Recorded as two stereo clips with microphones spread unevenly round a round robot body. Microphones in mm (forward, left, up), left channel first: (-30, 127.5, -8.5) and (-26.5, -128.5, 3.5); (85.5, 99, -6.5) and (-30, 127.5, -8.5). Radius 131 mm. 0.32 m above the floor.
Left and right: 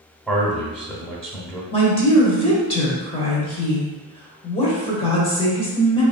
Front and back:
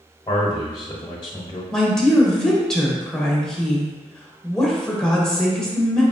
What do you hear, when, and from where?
0.3 s a man speaking: 10° left, 0.9 m
1.7 s a woman speaking: 65° left, 1.0 m